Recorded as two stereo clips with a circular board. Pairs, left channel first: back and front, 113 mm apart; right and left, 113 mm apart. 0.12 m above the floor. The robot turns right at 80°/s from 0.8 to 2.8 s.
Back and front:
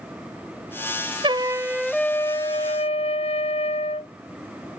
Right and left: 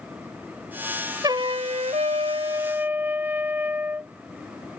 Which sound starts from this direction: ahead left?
A trumpet, at 1.2 s.